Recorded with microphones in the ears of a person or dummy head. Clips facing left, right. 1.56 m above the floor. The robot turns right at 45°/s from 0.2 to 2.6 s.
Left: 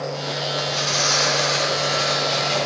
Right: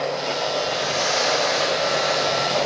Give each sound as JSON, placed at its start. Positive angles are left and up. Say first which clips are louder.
{"t": 0.6, "sound": "tearing paper", "louder": "right 2 dB", "azimuth_deg": 55, "distance_m": 3.5}